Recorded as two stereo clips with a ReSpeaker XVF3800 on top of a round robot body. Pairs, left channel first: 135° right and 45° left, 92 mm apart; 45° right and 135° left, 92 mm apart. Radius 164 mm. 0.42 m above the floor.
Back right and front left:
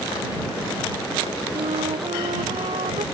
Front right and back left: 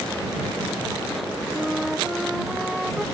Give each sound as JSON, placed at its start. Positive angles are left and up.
{"t": 1.5, "sound": "a flute", "azimuth_deg": 45}